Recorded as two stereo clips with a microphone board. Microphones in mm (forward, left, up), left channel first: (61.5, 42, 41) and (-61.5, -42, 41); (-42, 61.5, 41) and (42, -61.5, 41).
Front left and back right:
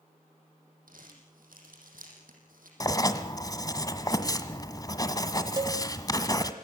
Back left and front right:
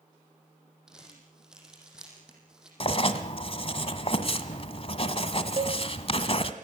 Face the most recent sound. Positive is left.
turn(degrees=-90)